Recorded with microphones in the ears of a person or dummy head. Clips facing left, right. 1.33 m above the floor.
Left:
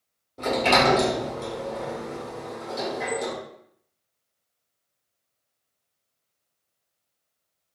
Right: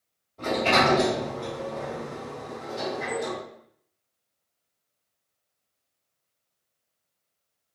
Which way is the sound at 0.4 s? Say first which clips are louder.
Left 2 dB; 60° left (ahead or behind).